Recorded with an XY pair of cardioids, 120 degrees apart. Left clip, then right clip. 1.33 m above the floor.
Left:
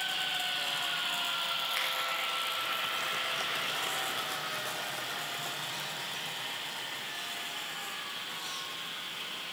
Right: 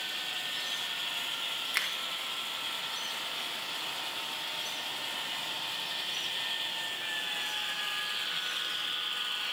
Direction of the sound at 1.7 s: 40° right.